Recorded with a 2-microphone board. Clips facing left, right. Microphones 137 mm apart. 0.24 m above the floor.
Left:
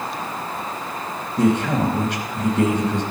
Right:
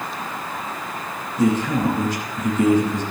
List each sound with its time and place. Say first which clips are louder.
1.4 s a man speaking: left 1 dB; 65° left (ahead or behind), 2.5 m